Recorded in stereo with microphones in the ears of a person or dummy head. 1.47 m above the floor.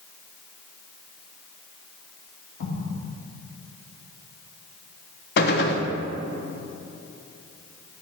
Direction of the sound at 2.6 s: 80° left.